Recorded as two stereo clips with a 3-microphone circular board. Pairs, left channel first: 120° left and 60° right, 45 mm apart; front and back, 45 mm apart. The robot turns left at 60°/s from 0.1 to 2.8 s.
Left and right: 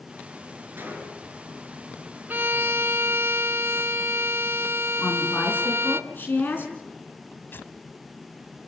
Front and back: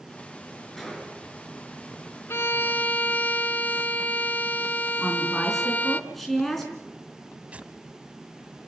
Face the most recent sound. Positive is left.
turn(degrees=130)